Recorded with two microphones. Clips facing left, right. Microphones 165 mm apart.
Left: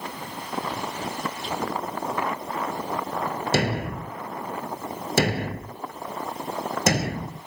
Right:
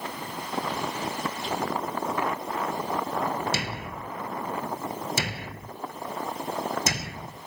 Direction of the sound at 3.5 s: 60° left (ahead or behind).